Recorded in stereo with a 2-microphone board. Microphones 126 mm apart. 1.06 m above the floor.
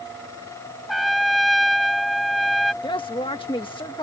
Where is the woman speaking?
45° left (ahead or behind).